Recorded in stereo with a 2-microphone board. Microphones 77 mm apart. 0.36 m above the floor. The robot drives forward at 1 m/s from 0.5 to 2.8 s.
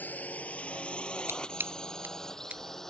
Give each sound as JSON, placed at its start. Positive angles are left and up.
{"t": 0.0, "sound": "a drone", "side_deg": 20}
{"t": 1.3, "sound": "scissors", "side_deg": -30}